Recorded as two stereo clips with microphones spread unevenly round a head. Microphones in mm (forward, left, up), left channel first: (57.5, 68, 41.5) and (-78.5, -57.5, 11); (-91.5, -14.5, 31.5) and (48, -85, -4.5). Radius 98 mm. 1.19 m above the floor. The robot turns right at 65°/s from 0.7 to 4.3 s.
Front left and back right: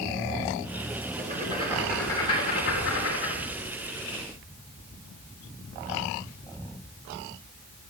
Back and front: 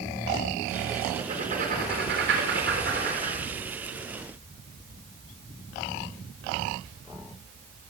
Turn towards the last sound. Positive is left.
turn(degrees=110)